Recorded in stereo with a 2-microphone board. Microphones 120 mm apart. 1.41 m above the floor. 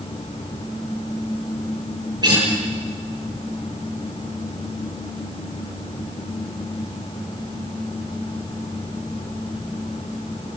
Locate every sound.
2.2 s a guitar: 35° right (ahead or behind), 9 m